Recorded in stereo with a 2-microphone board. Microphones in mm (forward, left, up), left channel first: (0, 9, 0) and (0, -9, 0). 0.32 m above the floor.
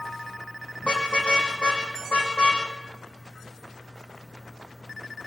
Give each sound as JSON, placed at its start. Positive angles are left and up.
{"t": 0.8, "sound": "a car horn", "side_deg": 75, "distance_m": 6.5}